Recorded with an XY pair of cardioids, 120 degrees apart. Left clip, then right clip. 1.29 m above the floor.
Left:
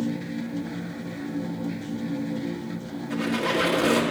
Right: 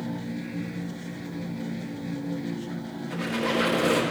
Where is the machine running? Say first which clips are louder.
Left 3 dB; 20° left, 1.1 m.